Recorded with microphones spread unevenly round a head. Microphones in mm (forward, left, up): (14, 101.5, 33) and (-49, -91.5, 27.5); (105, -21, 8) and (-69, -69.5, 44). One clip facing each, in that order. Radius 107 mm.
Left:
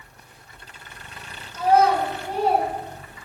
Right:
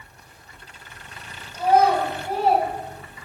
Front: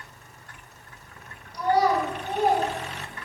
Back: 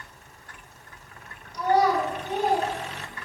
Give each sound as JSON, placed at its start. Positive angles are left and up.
{"t": 1.5, "sound": "a child speaking", "azimuth_deg": 175, "distance_m": 3.5}